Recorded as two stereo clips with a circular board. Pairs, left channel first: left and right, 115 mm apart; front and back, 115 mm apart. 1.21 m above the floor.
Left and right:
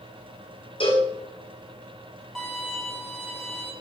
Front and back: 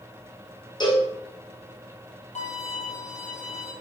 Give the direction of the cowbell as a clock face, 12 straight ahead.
10 o'clock.